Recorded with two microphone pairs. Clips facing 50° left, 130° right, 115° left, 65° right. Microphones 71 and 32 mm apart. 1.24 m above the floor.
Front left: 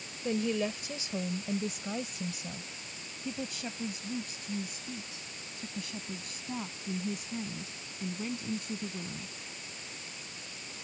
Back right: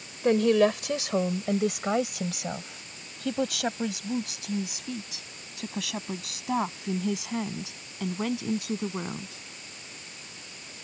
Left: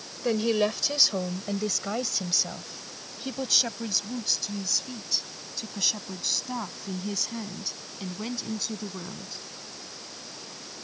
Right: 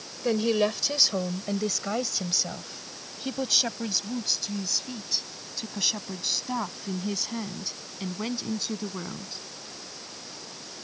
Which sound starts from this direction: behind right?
A woman speaking, at 0.2 s.